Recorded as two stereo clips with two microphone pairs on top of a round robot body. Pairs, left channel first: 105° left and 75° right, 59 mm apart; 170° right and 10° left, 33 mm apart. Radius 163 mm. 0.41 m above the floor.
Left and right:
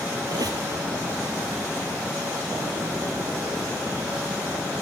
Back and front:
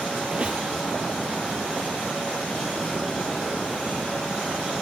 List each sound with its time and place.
0.3 s a squeak: 60° right, 0.9 m